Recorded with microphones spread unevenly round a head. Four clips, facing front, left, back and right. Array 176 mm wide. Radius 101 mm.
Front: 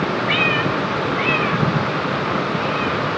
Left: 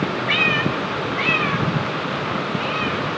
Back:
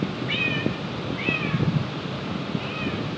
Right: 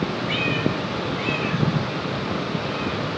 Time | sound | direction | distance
0.3 | a cat meowing | 40° left | 2.5 m